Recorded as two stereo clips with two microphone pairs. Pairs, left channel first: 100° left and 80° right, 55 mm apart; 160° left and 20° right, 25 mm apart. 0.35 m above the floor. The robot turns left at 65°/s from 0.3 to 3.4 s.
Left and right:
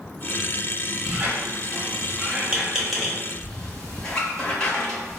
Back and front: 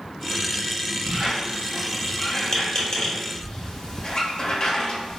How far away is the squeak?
About 0.8 m.